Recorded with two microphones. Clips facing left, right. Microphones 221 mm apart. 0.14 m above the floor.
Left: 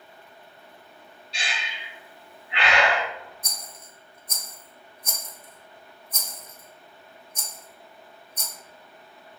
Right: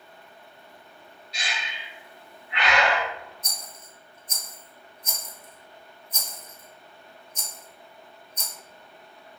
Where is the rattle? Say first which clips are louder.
Even; 60° left (ahead or behind), 0.9 m.